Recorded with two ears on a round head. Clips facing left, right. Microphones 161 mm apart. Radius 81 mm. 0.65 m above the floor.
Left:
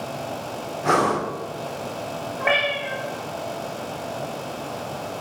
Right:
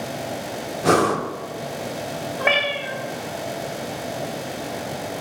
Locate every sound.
0.8 s breathing: 40° right (ahead or behind), 0.6 m
2.4 s a cat meowing: 40° right (ahead or behind), 1.2 m